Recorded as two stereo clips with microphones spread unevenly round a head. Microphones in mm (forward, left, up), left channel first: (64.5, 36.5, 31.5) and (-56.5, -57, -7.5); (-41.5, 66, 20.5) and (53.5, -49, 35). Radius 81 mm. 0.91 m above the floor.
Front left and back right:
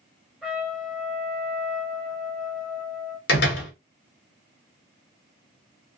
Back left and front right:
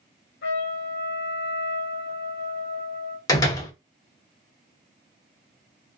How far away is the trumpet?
About 1.0 m.